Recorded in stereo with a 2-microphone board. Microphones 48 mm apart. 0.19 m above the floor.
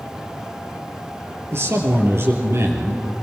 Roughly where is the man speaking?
Right.